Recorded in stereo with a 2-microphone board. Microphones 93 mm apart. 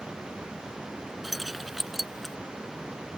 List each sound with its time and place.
1.2 s keys jangling: centre (ahead or behind)